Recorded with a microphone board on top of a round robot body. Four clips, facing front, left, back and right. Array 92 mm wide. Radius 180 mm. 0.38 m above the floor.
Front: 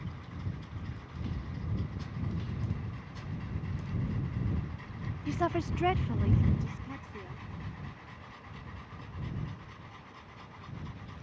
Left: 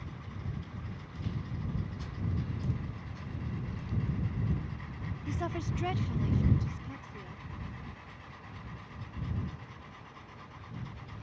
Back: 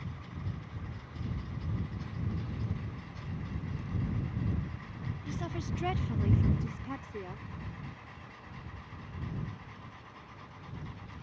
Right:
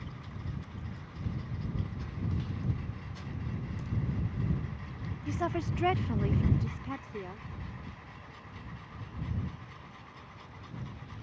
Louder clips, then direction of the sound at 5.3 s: Right 4 dB, front 9 dB; 15° right.